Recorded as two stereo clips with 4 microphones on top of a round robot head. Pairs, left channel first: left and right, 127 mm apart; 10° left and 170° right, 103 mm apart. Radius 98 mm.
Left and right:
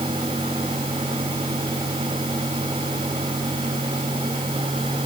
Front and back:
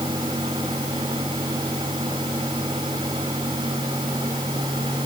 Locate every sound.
Only background noise.